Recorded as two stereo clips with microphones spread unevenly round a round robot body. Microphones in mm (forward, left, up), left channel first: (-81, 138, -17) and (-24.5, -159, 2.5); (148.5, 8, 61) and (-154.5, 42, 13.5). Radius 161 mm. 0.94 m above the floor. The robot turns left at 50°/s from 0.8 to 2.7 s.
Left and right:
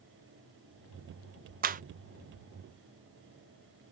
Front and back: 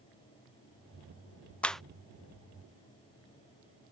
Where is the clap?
105° right; by 1.8 s 115° right.